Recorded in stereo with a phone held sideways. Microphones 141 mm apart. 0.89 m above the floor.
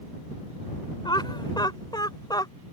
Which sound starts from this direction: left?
Laughter, at 1.1 s.